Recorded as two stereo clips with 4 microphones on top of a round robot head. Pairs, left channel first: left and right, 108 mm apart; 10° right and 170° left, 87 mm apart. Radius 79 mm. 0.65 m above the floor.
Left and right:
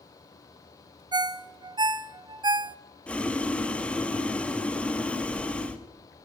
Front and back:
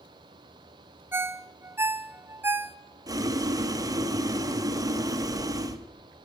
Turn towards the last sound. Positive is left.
turn(degrees=165)